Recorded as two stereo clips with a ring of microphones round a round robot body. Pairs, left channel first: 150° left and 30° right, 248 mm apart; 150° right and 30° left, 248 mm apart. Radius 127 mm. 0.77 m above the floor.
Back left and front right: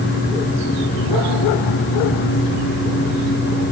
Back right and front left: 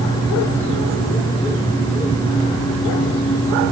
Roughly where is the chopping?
No chopping in this recording.